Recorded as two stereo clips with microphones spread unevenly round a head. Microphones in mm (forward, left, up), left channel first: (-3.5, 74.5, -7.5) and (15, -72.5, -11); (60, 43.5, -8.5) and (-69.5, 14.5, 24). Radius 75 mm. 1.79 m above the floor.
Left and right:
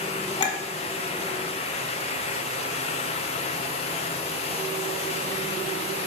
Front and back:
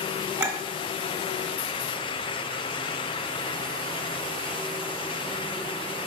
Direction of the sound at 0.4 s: 140° left.